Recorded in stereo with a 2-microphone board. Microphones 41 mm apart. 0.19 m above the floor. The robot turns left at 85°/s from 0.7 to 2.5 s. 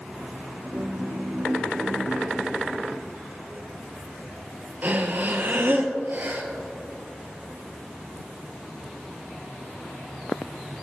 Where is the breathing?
45° right (ahead or behind), 1.3 m.